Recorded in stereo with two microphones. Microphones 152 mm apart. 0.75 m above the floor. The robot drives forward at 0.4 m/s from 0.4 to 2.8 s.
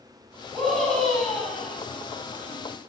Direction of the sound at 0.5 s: Centre (ahead or behind).